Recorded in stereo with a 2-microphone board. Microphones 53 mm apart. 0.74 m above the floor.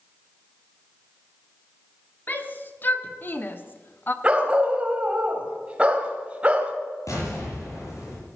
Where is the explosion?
75° left (ahead or behind), 9 m.